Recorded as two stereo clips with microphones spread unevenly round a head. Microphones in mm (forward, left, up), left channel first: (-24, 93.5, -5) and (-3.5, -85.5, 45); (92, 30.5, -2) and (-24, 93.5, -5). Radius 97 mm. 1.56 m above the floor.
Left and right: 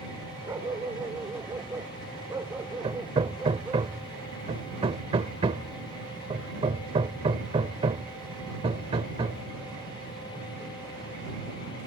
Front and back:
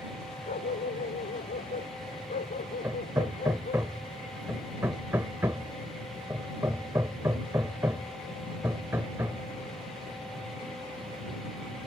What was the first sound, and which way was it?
A dog barking, 10° right.